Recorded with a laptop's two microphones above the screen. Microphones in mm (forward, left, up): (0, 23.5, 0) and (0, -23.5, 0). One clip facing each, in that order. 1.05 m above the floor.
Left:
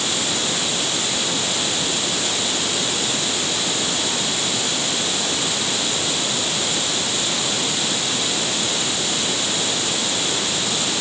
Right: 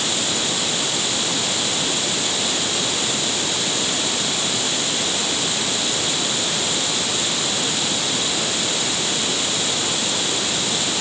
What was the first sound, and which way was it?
Only background noise.